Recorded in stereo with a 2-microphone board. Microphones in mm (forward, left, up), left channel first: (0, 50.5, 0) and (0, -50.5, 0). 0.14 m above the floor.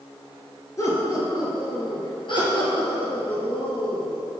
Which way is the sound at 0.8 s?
30° left (ahead or behind).